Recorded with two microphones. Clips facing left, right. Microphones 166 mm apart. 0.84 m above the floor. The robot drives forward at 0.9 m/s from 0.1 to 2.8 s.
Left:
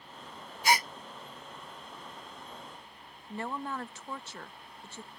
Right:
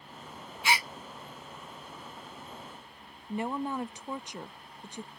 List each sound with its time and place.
0.6 s a gasp: 40° left (ahead or behind); by 0.9 s 45° left (ahead or behind)
3.3 s a woman speaking: 15° right (ahead or behind)